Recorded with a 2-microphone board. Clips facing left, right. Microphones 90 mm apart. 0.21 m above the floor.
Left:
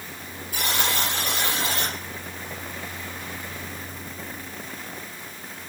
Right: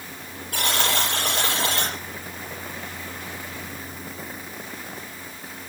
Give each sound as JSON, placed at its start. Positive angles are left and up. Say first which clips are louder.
{"t": 0.5, "sound": "a buzzer", "louder": "right 2 dB", "side_deg": -80, "distance_m": 7.5}